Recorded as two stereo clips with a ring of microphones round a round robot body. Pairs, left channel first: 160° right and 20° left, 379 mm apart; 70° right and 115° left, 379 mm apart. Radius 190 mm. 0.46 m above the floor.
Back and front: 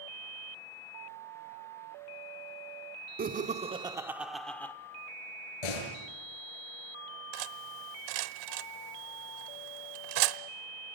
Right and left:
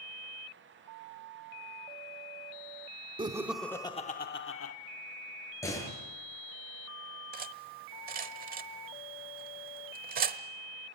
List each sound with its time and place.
3.2 s laughter: 50° left, 1.1 m; by 4.7 s 80° right, 1.2 m
5.6 s a door slam: 150° right, 6 m
7.3 s cutlery clinking: 45° left, 1.1 m